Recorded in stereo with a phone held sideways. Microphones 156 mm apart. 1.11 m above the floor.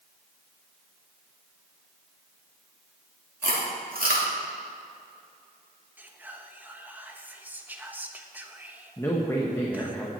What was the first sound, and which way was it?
Chewing, 75° right (ahead or behind).